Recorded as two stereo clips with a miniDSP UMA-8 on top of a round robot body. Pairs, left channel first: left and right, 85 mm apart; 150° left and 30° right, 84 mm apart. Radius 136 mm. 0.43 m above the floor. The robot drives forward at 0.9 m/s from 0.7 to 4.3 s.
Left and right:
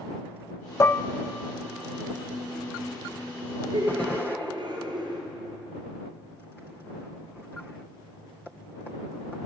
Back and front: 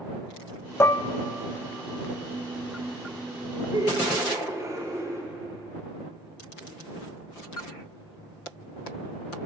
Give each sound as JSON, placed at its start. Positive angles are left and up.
{"t": 0.8, "sound": "dishes clattering", "azimuth_deg": 115, "distance_m": 0.5}
{"t": 3.7, "sound": "laughter", "azimuth_deg": -65, "distance_m": 2.5}